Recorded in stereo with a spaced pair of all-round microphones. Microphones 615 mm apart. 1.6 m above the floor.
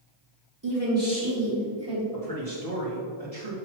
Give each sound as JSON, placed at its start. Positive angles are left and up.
{"t": 0.6, "sound": "a woman speaking", "side_deg": -30, "distance_m": 3.0}
{"t": 2.1, "sound": "a man speaking", "side_deg": -65, "distance_m": 3.0}